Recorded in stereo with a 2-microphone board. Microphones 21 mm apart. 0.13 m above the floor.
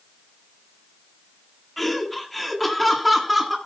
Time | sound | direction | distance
1.8 | laughter | 10° left (ahead or behind) | 1.7 m